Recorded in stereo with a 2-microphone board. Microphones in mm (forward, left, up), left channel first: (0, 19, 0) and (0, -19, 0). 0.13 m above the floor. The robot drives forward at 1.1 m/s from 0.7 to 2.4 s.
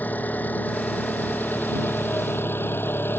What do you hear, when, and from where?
0.0 s an engine running: 45° left (ahead or behind); by 3.2 s 70° left (ahead or behind)